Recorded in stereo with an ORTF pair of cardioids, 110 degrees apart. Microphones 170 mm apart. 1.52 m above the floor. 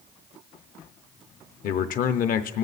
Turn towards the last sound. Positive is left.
turn(degrees=55)